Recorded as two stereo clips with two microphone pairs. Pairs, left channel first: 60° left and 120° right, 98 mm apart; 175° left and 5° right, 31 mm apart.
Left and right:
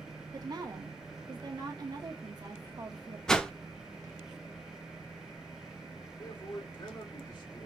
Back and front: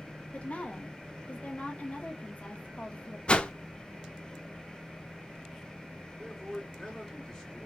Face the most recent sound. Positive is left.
turn(degrees=100)